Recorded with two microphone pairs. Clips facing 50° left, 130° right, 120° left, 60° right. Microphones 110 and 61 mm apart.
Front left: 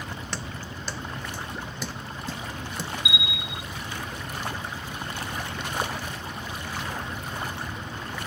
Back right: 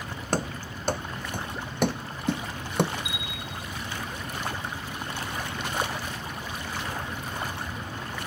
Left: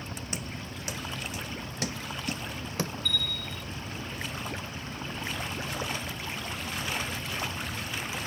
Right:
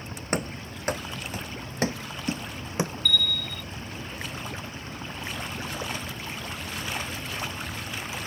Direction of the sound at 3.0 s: 35° right.